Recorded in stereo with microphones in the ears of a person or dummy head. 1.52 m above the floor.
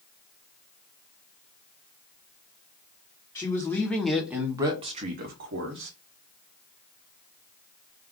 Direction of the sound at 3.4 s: 20° left (ahead or behind).